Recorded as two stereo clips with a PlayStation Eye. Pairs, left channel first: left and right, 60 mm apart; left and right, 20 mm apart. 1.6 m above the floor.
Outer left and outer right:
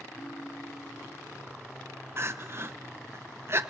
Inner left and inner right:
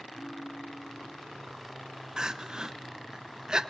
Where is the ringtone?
80° left, 6 m.